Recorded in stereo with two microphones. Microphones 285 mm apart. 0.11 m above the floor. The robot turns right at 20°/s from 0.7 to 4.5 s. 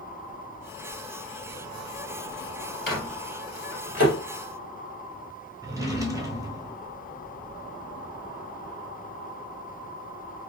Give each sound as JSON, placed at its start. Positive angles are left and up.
{"t": 2.9, "sound": "a microwave", "side_deg": 35, "distance_m": 1.9}
{"t": 5.6, "sound": "a drawer", "side_deg": -10, "distance_m": 0.7}